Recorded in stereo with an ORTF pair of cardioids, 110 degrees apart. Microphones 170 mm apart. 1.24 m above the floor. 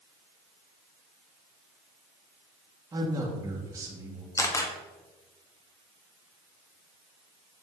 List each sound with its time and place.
2.9 s a man speaking: 20° right, 2.5 m
4.4 s a camera shutter: 20° left, 1.3 m